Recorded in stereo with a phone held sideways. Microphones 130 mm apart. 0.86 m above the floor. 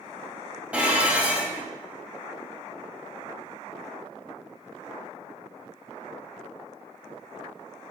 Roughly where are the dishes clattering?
Centre.